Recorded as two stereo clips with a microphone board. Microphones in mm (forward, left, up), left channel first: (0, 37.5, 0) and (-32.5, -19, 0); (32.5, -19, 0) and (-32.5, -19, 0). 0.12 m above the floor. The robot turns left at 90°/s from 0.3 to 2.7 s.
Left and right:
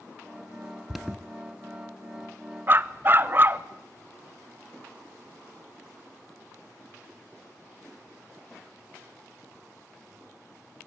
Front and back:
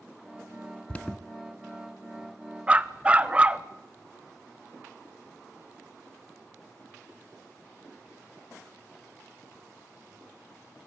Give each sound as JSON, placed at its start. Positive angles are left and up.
{"t": 0.9, "sound": "an alarm", "azimuth_deg": -35, "distance_m": 0.9}
{"t": 2.7, "sound": "a dog barking", "azimuth_deg": -125, "distance_m": 0.7}